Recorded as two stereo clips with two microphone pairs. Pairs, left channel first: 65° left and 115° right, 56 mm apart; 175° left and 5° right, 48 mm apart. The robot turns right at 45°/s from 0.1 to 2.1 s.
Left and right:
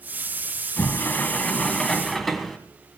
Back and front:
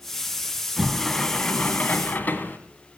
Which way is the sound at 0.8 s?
85° left.